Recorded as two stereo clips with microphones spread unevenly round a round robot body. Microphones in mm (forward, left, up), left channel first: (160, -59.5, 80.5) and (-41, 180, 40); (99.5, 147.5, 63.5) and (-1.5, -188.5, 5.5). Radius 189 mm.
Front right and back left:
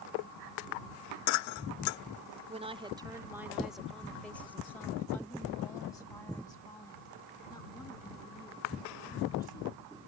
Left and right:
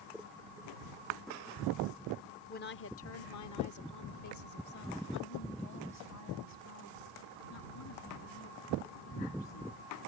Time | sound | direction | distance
2.5 | a woman speaking | 130° left | ?